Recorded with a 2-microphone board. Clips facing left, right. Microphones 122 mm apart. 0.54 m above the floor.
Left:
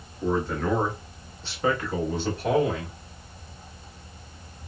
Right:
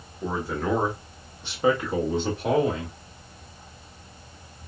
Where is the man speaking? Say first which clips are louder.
Left 2 dB; 5° right (ahead or behind), 0.9 m; by 3.0 s 20° right (ahead or behind), 1.4 m.